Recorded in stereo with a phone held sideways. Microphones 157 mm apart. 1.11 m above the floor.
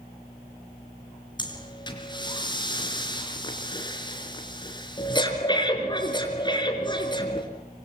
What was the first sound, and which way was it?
Breathing, 30° left (ahead or behind).